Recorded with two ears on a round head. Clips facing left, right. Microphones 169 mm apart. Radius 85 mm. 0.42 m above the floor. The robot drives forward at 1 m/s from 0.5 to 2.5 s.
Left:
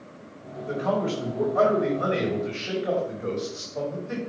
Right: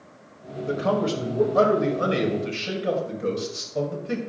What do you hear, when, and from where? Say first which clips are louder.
0.7 s a man speaking: right 2 dB; 50° right (ahead or behind), 2 m; by 4.2 s 45° right (ahead or behind), 2.5 m